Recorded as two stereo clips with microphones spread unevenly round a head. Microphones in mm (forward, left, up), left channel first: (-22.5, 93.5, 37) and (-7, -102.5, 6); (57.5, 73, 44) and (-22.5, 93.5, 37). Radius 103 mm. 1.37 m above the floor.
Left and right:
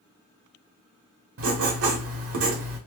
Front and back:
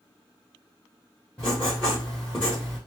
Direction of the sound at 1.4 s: 95° right.